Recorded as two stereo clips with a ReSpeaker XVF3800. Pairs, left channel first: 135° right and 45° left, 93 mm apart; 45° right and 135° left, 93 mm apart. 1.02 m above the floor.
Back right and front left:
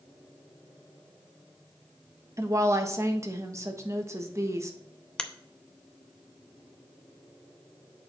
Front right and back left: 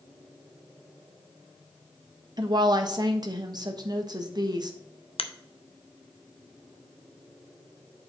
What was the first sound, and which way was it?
A woman speaking, 100° left.